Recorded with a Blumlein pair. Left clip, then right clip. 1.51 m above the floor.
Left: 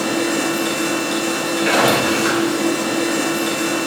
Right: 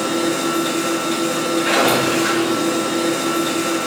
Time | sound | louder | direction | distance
0.0 | a machine running | even | 15° left | 1.6 m